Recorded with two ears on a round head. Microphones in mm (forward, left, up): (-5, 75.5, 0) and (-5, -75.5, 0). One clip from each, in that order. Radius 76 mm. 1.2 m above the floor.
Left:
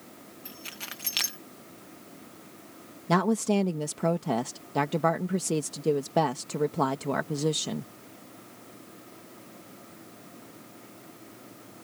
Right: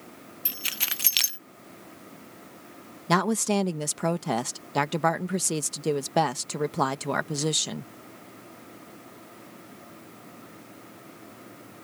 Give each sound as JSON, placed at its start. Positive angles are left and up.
{"t": 0.5, "sound": "keys jangling", "side_deg": -60}
{"t": 3.1, "sound": "a woman speaking", "side_deg": -40}